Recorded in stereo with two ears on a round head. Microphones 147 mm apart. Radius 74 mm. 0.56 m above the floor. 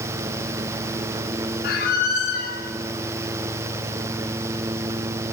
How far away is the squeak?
About 1.3 m.